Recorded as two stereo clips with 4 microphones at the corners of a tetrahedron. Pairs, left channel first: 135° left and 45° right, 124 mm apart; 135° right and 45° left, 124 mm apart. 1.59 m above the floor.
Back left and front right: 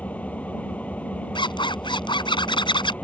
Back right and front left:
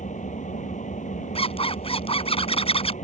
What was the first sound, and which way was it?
An engine running, 145° right.